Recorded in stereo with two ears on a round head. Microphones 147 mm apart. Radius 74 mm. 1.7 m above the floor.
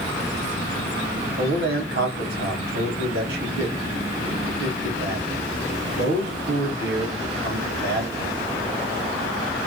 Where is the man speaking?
65° right (ahead or behind), 1.2 m.